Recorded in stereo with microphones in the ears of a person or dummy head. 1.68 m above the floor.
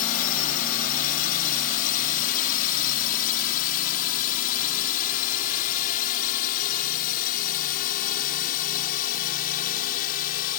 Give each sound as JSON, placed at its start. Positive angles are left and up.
{"t": 0.0, "sound": "a drone", "side_deg": 45}